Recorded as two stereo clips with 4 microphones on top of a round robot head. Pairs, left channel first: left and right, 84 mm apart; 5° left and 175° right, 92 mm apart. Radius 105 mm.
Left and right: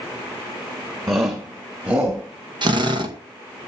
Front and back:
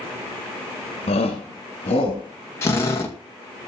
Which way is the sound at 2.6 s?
60° right.